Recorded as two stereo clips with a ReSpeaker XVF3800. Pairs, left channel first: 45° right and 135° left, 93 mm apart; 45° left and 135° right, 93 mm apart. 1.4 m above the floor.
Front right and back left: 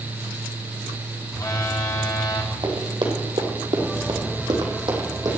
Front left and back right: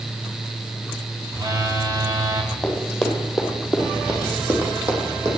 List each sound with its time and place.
1.3 s a phone buzzing: 95° right, 1.5 m
2.6 s running footsteps: 125° left, 3 m; by 5.4 s 170° left, 3.5 m